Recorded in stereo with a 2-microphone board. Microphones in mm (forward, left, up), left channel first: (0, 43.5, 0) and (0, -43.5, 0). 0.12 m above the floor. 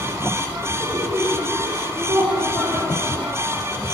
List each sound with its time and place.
0.8 s laughter: 50° right (ahead or behind), 2 m; by 3.6 s 25° right (ahead or behind), 3.5 m